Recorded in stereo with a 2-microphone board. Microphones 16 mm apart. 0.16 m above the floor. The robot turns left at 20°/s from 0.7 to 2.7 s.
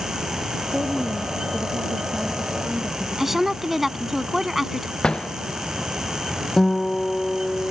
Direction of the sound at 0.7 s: 50° right.